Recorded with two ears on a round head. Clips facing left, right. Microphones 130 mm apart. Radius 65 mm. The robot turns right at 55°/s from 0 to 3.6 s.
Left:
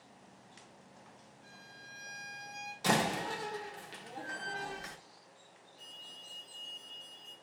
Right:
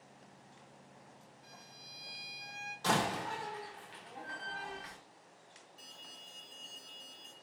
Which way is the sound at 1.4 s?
40° right.